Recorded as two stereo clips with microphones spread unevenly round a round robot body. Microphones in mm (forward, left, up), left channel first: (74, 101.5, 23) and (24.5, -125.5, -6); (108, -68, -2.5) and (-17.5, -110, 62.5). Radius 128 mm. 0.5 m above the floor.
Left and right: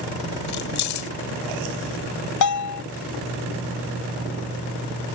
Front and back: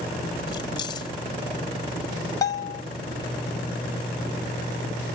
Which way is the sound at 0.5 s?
70° left.